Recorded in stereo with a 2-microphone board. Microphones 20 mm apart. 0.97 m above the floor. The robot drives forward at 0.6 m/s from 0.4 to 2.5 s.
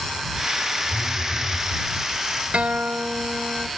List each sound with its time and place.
0.9 s a phone buzzing: 5° right (ahead or behind), 6 m
2.5 s a guitar: 70° right (ahead or behind), 0.6 m